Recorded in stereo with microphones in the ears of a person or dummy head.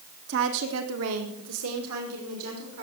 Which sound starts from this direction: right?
A woman speaking, at 0.3 s.